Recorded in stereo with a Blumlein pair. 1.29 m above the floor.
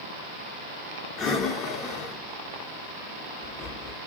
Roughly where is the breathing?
Ahead left.